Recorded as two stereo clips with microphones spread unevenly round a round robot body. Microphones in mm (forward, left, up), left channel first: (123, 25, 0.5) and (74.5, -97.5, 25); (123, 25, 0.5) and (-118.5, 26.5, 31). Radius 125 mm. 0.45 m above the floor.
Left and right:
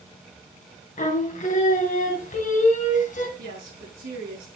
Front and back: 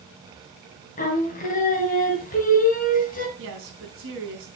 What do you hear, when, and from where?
1.0 s singing: 55° left, 2.5 m
3.4 s a woman speaking: 135° right, 4 m